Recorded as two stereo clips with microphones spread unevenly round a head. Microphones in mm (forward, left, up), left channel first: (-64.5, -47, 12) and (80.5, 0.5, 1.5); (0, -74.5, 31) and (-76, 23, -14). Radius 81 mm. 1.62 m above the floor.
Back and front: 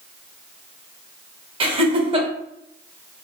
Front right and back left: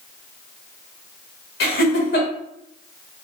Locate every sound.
1.6 s laughter: 35° right, 0.8 m